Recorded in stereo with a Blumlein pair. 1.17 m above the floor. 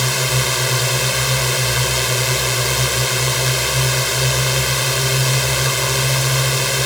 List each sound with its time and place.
0.0 s a drone: 5° left